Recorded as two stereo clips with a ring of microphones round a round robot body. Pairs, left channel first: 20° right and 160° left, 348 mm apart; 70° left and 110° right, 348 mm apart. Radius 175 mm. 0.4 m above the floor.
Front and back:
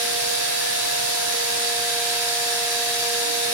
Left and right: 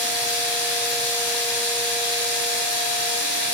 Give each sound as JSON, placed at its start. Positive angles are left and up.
{"t": 0.0, "sound": "running water", "azimuth_deg": 115, "distance_m": 2.0}